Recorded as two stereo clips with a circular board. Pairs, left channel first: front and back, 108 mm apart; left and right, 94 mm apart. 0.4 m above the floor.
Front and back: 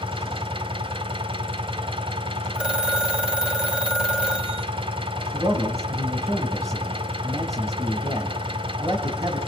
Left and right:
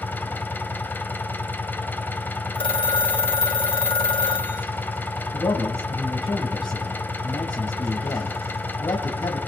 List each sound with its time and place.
0.0 s an engine running: 155° left, 1.6 m
2.5 s a phone ringing: 100° left, 1.9 m
5.3 s a man speaking: 125° left, 3 m